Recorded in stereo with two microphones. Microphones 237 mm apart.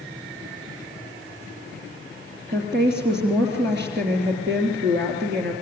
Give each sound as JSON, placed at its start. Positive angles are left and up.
{"t": 2.5, "sound": "a woman speaking", "side_deg": -45, "distance_m": 3.0}